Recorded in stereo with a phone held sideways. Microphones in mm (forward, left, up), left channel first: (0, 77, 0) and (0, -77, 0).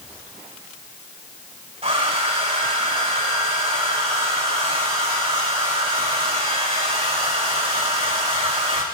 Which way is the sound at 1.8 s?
45° right (ahead or behind).